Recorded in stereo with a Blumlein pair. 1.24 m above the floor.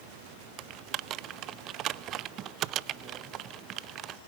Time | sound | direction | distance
0.6 | typing on a keyboard | 35° right | 0.6 m